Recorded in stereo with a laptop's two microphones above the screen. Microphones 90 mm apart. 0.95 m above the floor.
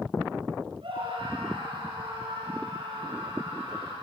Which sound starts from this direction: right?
A scream, at 0.8 s.